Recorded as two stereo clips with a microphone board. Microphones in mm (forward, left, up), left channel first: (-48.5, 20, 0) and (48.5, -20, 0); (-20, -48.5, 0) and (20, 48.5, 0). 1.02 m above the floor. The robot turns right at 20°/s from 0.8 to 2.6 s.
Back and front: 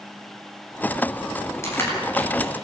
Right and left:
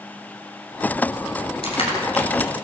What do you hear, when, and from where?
1.6 s crushing: 140° right, 7.5 m; by 2.5 s 120° right, 7.5 m